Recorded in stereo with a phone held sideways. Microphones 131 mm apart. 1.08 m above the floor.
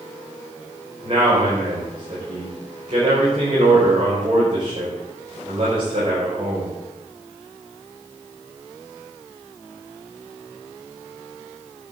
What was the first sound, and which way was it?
A man speaking, 40° right (ahead or behind).